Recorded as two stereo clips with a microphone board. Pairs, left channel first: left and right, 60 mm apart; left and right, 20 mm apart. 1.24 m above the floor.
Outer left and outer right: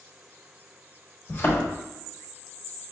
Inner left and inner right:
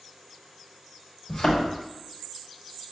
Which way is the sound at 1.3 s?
35° left (ahead or behind).